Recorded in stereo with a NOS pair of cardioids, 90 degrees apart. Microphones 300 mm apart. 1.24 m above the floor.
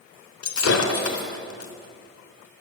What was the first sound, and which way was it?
Breaking glass, 60° left.